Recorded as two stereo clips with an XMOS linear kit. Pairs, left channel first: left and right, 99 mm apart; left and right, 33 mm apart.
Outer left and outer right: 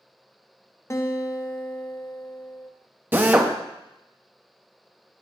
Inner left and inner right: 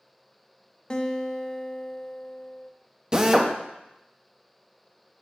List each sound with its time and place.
0.9 s a guitar: 30° left (ahead or behind), 0.7 m
3.1 s a drill: 20° right (ahead or behind), 0.8 m